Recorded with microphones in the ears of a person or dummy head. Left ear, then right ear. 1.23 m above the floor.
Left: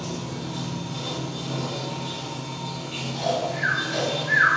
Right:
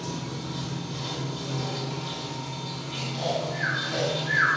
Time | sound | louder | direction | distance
0.0 | running water | left 2 dB | 45° left (ahead or behind) | 1.7 m
3.1 | snoring | left 4 dB | 20° right (ahead or behind) | 1.3 m